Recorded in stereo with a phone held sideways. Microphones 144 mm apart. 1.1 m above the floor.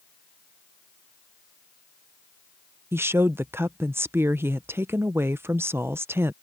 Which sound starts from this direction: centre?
A woman speaking, at 2.9 s.